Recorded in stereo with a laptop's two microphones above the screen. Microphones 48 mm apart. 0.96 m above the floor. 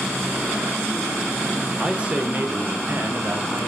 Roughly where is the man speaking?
Centre.